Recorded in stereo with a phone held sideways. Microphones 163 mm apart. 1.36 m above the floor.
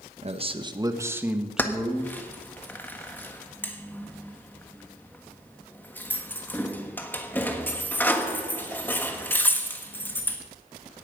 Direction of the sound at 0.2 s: 40° right (ahead or behind).